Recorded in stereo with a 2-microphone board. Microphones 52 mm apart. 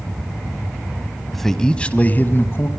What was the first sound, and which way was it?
A man speaking, centre (ahead or behind).